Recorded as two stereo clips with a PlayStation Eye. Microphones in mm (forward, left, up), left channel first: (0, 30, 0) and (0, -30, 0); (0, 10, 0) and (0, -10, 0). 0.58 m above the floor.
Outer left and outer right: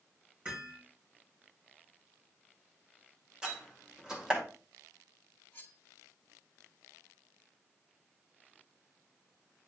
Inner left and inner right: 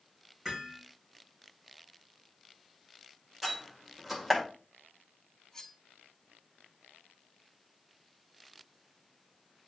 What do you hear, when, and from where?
0.5 s hammering: 25° right (ahead or behind), 4 m
3.4 s a door slam: 10° right (ahead or behind), 2.0 m
5.5 s cutlery clinking: 30° left (ahead or behind), 1.9 m